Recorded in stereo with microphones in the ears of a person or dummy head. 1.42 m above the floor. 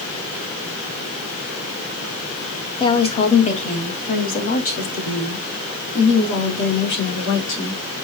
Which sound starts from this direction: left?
A woman speaking, at 2.8 s.